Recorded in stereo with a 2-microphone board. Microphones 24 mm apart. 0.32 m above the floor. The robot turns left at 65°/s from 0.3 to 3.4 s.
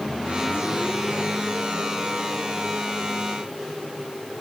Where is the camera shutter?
No camera shutter in this recording.